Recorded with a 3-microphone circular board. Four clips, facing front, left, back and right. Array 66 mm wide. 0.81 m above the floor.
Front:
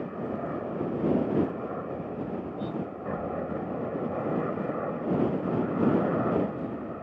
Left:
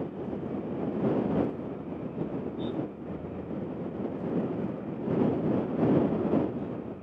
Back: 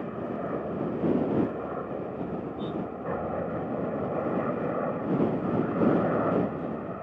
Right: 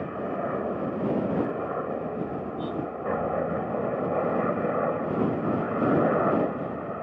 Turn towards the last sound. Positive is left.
turn(degrees=-100)